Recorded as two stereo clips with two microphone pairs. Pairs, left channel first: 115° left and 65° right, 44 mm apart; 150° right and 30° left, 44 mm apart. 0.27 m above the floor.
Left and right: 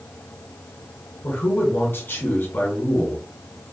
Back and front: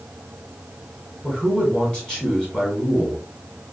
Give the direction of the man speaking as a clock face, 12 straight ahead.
7 o'clock.